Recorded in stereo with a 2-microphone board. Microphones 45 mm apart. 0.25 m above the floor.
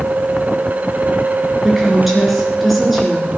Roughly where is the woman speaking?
Centre.